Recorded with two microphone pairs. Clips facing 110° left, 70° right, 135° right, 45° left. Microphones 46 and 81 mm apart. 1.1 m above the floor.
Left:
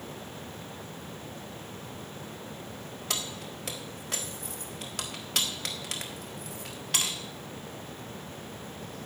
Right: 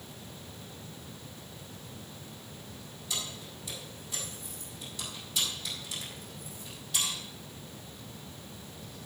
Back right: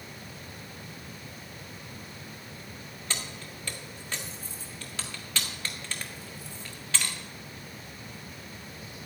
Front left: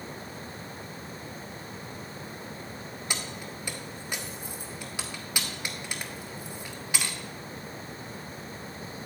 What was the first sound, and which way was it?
Keys jangling, 120° left.